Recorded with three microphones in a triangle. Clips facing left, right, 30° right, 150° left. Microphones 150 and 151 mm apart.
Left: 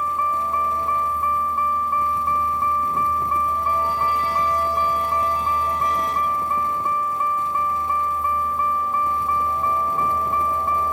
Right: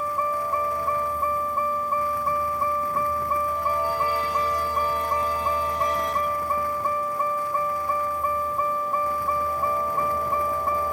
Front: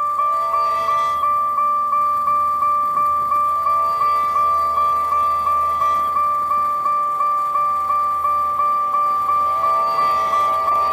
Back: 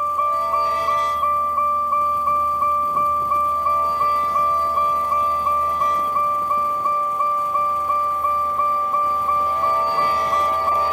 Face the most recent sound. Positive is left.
turn(degrees=-140)